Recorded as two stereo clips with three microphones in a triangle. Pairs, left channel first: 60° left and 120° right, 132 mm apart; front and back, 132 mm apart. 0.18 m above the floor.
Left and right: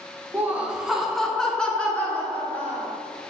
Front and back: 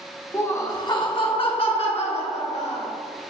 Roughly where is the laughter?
Ahead right.